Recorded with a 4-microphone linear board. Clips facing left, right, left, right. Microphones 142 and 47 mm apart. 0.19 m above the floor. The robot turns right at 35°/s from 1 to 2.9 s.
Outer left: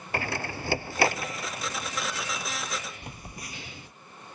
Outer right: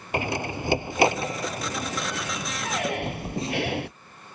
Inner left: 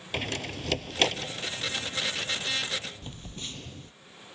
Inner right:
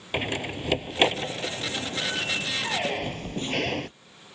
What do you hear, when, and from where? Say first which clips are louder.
0.1 s a door slam: outer right 5 dB, inner right 4 dB; 20° right (ahead or behind); by 3.9 s 75° right (ahead or behind)
3.0 s a phone buzzing: outer right 13 dB, inner right 10 dB; 25° right (ahead or behind)